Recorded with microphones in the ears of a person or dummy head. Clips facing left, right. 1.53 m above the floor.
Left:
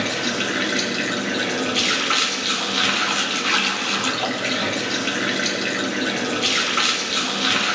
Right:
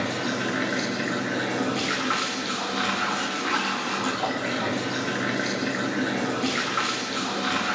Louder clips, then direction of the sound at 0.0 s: Left 2 dB; 45° left (ahead or behind).